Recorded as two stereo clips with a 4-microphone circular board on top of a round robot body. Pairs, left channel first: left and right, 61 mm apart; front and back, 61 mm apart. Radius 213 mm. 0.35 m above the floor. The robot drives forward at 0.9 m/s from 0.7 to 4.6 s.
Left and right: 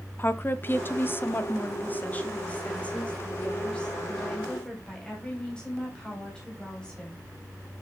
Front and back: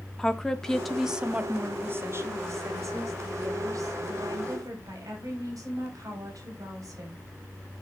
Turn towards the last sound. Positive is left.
turn(degrees=170)